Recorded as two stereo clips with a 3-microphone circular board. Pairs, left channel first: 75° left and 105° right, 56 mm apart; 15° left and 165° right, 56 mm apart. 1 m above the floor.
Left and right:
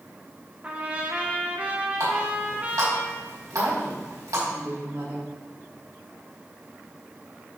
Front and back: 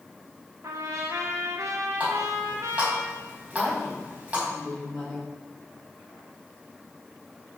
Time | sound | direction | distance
0.6 | a trumpet | 165° right | 1.4 m
2.0 | a running tap | 95° right | 4.5 m
3.5 | a woman speaking | 75° right | 4 m